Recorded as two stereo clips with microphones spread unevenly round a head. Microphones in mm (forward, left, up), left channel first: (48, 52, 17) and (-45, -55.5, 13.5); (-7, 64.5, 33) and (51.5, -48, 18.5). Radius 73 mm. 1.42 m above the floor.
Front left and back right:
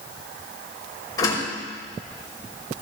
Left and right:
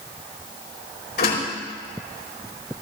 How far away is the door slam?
About 5.5 m.